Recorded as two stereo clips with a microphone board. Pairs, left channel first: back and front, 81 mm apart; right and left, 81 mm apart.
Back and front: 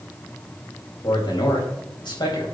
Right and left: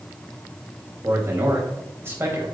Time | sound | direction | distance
1.0 | a man speaking | 150° left | 4.5 m